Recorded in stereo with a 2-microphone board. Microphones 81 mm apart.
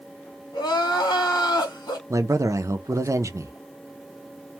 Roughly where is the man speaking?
Right.